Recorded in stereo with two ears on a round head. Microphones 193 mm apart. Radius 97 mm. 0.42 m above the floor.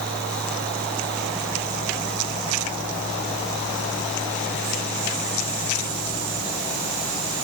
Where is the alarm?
No alarm in this recording.